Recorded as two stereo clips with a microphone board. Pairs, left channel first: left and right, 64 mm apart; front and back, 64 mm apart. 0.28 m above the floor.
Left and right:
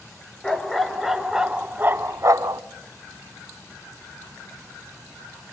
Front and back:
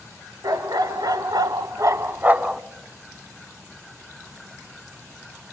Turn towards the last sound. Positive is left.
turn(degrees=-100)